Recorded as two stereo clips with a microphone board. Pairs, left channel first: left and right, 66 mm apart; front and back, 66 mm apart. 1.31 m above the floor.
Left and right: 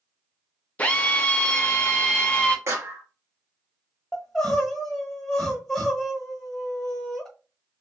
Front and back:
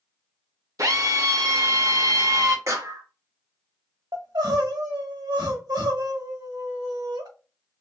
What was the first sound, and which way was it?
A drill, 155° left.